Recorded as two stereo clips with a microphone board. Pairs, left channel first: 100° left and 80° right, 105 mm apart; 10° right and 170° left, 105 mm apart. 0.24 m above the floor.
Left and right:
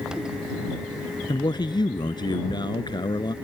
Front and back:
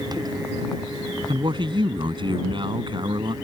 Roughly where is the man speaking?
Behind left.